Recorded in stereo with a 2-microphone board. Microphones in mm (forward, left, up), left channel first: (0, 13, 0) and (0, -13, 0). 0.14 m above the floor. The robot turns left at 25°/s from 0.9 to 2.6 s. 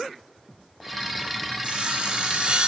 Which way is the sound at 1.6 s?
40° right (ahead or behind).